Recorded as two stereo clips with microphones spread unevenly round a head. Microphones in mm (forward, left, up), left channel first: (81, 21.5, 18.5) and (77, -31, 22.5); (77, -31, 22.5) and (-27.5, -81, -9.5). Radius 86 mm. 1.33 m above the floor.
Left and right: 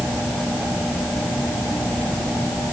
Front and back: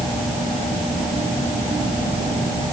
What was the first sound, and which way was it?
Only background noise.